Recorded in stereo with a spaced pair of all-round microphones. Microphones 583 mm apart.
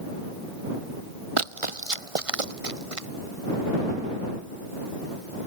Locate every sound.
1.4 s running footsteps: 55° right (ahead or behind); by 3.1 s 65° right (ahead or behind)